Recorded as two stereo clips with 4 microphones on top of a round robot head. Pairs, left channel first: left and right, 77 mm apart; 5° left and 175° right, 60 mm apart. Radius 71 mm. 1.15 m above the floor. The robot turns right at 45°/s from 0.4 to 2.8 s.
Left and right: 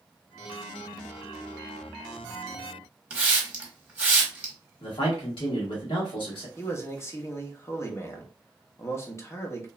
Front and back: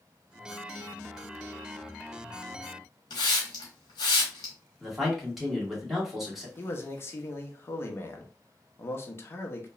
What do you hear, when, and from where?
3.1 s a hiss: 15° right, 1.0 m
4.8 s a man speaking: 100° left, 1.6 m
6.6 s a man speaking: 45° left, 0.8 m